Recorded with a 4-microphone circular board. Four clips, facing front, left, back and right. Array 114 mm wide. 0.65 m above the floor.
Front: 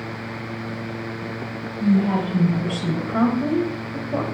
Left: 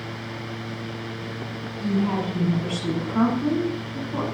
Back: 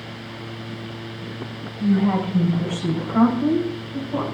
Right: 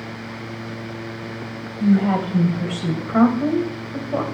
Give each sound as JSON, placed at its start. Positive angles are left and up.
{"t": 1.8, "sound": "a woman speaking", "azimuth_deg": -90, "distance_m": 3.5}